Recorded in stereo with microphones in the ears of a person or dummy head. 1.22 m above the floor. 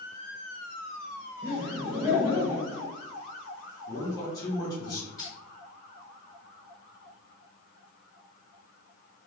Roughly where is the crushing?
Centre.